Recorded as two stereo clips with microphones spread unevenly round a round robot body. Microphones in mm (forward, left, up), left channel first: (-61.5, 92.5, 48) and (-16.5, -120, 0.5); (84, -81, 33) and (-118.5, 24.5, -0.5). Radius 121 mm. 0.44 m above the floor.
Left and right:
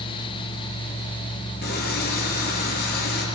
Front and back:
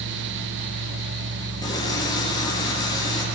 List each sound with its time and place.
1.6 s a running tap: 50° left, 7 m